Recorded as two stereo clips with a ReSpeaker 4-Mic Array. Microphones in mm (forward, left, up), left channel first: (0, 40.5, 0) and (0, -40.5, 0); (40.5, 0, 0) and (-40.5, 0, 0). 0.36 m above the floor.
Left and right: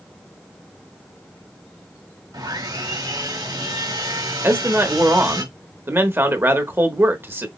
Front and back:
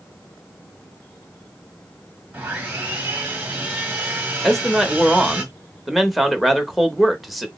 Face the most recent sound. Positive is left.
turn(degrees=-90)